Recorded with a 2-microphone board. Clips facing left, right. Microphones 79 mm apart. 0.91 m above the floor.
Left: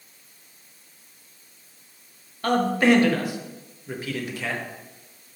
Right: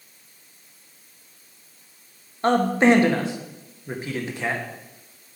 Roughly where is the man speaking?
Right.